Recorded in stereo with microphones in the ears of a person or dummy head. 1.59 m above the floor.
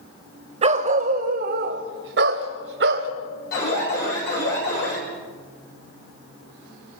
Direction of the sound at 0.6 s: 40° right (ahead or behind).